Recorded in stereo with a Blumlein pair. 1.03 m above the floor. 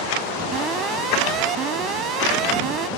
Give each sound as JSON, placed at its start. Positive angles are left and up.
{"t": 0.5, "sound": "an alarm", "azimuth_deg": -30}